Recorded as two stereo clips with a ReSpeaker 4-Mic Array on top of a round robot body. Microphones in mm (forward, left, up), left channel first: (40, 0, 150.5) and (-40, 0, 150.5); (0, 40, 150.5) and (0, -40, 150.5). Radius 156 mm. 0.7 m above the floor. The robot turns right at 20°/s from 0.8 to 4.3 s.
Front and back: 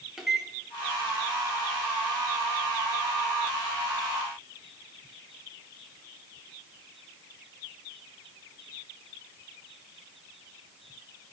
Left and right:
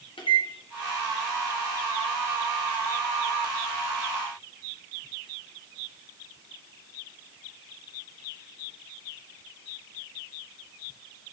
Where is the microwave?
95° left, 1.2 m.